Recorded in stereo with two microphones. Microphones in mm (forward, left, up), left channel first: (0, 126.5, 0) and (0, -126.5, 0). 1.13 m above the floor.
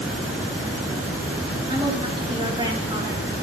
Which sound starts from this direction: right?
A woman speaking, at 1.7 s.